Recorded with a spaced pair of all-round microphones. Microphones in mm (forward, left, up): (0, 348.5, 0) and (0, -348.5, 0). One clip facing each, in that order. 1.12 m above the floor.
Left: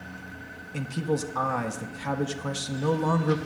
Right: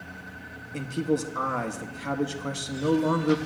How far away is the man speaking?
About 0.7 m.